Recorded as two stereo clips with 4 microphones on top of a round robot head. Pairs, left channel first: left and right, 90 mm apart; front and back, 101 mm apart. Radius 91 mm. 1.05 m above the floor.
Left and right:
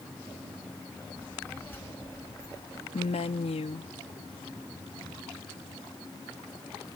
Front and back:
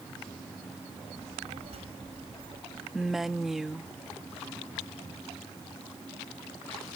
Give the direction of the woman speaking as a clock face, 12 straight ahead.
9 o'clock.